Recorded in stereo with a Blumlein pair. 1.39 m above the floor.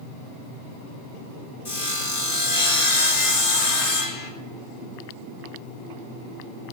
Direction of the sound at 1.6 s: 55° left.